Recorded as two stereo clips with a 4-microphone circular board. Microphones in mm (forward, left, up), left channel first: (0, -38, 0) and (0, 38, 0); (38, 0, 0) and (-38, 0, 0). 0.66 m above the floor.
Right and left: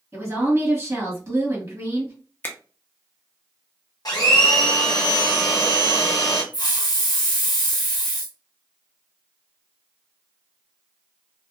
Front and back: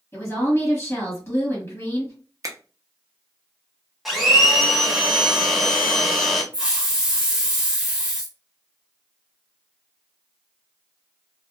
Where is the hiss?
105° right, 0.8 m.